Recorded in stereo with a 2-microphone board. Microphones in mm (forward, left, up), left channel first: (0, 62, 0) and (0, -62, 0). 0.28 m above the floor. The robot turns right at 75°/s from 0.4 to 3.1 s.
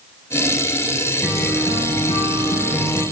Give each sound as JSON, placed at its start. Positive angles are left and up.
{"t": 1.2, "sound": "a guitar", "azimuth_deg": 20, "distance_m": 2.5}